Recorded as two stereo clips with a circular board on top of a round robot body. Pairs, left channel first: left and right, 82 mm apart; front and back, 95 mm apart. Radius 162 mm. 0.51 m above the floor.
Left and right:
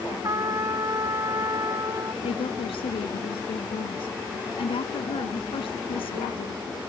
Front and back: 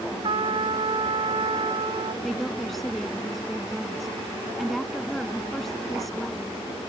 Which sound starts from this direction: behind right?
A trumpet, at 0.2 s.